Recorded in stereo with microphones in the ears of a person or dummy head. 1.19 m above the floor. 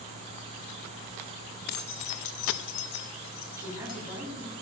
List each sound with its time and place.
1.7 s keys jangling: 50° left (ahead or behind), 0.8 m; by 4.0 s 40° left (ahead or behind), 1.2 m
3.5 s a woman speaking: 15° right (ahead or behind), 8 m